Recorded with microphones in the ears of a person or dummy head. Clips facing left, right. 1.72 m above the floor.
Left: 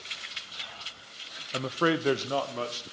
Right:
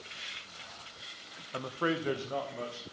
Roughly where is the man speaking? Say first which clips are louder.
Left 5 dB; left.